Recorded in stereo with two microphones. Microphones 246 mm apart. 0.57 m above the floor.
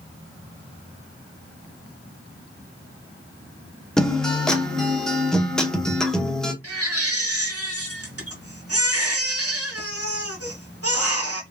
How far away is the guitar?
About 0.8 m.